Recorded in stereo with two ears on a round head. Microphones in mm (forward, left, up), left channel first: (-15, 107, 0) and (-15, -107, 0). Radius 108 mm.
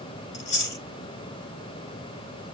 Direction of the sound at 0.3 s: 50° left (ahead or behind).